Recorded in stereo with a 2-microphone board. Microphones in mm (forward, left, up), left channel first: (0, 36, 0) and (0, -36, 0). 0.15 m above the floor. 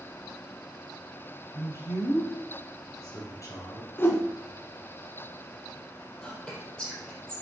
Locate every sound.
1.5 s a man speaking: 45° left (ahead or behind), 4 m
4.0 s a whoosh: 30° left (ahead or behind), 1.4 m
6.2 s whispering: 10° left (ahead or behind), 5 m